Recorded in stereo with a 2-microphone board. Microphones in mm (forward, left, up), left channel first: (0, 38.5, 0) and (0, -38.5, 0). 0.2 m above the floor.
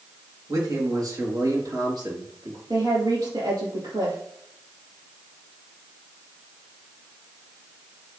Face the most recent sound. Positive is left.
turn(degrees=-60)  # may be behind; listen again after turning